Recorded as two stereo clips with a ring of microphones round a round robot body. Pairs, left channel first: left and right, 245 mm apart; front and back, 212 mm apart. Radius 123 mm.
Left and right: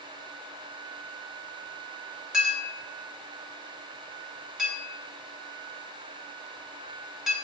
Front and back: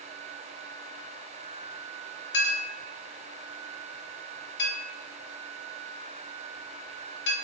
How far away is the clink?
About 1.0 m.